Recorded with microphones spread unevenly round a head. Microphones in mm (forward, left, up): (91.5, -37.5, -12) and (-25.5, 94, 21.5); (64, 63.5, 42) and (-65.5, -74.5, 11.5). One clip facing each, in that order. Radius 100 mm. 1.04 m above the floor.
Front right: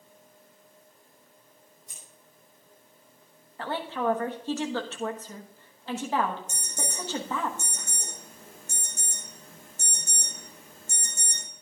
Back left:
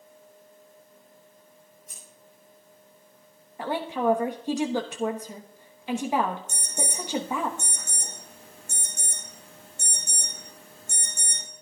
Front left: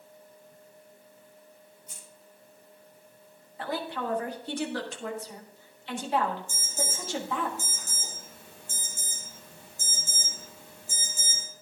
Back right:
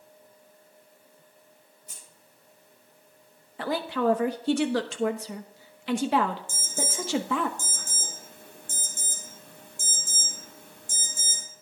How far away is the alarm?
About 5 m.